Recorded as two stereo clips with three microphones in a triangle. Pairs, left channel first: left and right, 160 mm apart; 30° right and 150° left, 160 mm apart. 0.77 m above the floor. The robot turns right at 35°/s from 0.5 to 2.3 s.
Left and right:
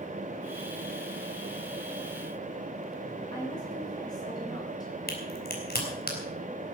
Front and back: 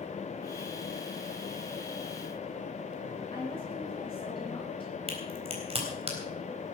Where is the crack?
100° left, 3.5 m.